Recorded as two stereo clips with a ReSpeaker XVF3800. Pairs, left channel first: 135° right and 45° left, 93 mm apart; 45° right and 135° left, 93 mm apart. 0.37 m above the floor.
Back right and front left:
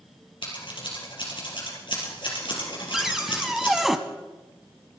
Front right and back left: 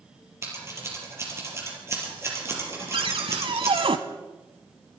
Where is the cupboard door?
130° left, 1.0 m.